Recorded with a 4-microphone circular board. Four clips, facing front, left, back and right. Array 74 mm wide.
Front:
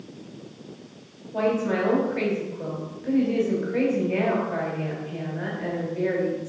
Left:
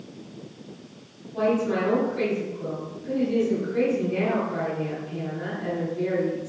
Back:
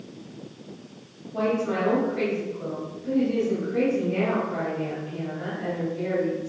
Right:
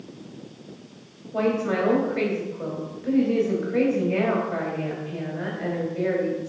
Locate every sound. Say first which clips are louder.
1.3 s a woman speaking: even, front 1 dB; 80° right, 3 m